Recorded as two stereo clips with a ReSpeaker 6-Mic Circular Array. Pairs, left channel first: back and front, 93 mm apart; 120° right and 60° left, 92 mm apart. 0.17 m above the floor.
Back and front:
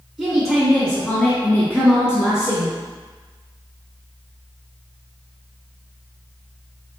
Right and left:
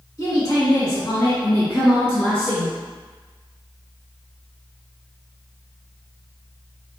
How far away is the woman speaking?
About 1.4 m.